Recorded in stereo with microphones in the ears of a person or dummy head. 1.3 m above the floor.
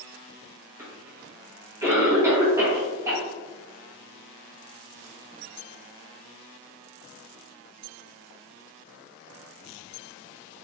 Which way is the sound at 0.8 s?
15° right (ahead or behind).